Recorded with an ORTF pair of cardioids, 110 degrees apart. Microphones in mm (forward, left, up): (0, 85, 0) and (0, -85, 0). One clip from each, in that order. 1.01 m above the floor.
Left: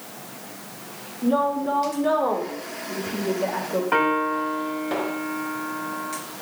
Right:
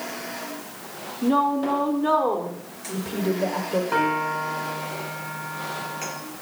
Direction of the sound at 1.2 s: 45° right.